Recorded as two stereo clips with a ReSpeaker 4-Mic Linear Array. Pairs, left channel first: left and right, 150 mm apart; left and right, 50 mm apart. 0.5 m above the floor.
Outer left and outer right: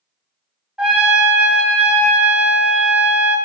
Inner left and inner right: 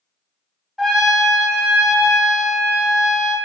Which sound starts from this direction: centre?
A trumpet, at 0.8 s.